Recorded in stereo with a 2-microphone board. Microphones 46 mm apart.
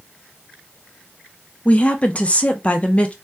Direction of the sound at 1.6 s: 25° left (ahead or behind).